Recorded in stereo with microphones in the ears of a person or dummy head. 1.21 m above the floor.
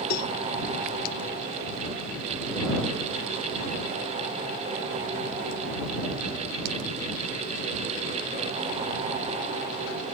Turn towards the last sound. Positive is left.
turn(degrees=65)  # may be behind; listen again after turning